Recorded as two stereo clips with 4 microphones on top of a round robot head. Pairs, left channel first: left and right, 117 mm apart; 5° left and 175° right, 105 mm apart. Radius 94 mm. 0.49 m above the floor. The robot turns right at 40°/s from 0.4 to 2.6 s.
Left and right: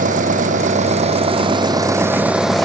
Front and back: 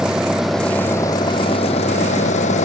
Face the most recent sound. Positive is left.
turn(degrees=0)